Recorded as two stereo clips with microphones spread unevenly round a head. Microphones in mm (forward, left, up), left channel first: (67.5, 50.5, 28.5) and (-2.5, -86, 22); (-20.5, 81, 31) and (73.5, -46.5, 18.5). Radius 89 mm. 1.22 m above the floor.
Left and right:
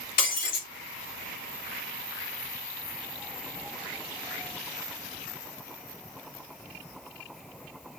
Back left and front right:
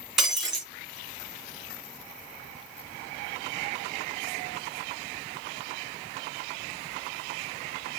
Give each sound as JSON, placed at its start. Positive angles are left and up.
{"t": 0.2, "sound": "breaking glass", "azimuth_deg": 35, "distance_m": 5.5}